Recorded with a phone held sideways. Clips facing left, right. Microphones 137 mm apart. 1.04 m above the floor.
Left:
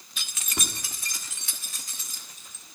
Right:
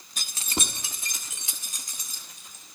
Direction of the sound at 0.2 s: 45° right (ahead or behind).